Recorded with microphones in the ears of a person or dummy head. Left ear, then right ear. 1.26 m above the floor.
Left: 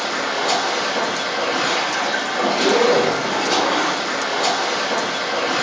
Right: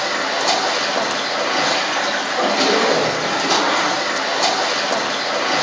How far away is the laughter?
No laughter in this recording.